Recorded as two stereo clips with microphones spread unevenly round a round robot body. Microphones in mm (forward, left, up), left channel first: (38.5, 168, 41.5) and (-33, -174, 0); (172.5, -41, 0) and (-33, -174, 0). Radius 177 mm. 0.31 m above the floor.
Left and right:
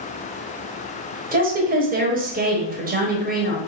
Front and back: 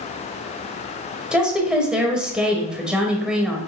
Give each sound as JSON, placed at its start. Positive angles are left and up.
{"t": 1.3, "sound": "a woman speaking", "azimuth_deg": -60, "distance_m": 1.1}